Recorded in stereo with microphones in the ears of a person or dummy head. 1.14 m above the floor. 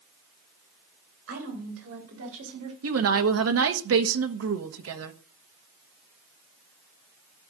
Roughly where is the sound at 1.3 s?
Right.